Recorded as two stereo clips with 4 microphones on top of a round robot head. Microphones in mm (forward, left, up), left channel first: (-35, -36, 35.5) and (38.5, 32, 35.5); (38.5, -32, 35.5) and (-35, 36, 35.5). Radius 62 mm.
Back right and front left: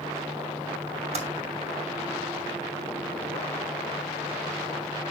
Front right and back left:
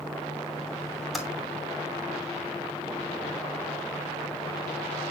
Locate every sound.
1.1 s typing on a keyboard: 50° left, 2.5 m